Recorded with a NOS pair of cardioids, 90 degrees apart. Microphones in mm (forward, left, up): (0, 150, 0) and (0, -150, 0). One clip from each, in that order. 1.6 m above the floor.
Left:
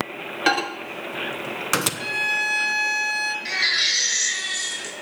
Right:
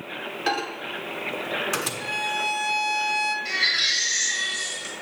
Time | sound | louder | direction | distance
0.5 | a microwave | left 5 dB | 45° left | 1.0 m
2.0 | a violin | left 3 dB | 25° left | 2.5 m
3.5 | a baby crying | left 3 dB | 70° left | 4 m